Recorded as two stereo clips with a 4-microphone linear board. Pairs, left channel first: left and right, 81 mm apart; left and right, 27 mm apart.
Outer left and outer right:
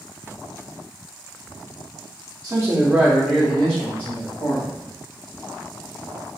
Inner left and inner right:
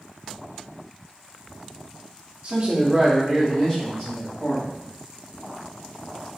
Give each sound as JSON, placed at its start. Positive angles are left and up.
{"t": 2.4, "sound": "a man speaking", "side_deg": -50, "distance_m": 0.9}